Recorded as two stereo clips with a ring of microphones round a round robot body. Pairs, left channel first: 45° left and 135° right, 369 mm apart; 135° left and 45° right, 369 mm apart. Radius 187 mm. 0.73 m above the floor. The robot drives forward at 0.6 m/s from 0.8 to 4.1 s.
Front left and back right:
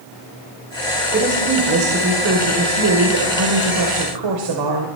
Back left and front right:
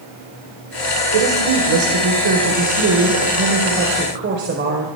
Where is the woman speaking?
70° right, 3 m; by 4.9 s 110° right, 3 m.